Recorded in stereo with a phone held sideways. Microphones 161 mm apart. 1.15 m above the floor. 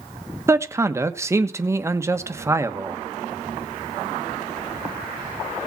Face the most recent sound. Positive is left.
turn(degrees=-15)  # may be behind; listen again after turning